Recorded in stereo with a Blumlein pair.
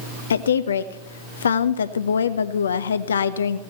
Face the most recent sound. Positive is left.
turn(degrees=70)